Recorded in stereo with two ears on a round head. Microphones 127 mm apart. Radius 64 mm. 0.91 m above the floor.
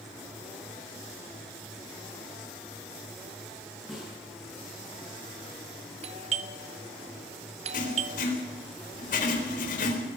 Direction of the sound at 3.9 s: Centre (ahead or behind).